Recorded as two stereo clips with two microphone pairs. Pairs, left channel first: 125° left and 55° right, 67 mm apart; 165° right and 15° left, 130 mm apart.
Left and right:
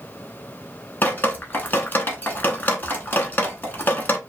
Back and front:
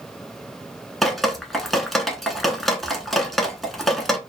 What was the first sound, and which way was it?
Dripping, 105° left.